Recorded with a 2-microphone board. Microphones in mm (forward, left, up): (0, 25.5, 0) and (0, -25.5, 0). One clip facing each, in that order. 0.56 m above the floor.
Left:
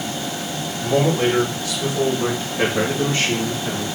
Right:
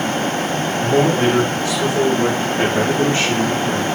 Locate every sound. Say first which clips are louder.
0.8 s a man speaking: right 2 dB; 30° right (ahead or behind), 1.6 m; by 3.9 s 25° right (ahead or behind), 1.9 m